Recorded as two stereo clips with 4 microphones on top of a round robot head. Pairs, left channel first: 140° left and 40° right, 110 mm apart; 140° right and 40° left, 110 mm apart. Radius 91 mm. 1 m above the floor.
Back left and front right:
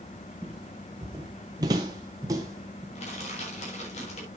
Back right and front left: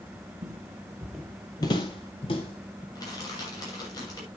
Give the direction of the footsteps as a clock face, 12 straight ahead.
10 o'clock.